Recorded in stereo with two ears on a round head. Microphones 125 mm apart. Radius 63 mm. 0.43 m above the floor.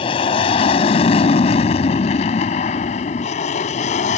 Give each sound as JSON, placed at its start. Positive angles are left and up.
{"t": 0.0, "sound": "an aircraft", "side_deg": 40}